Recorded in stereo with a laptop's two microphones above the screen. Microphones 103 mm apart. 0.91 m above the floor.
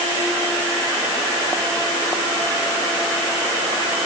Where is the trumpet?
I don't hear a trumpet.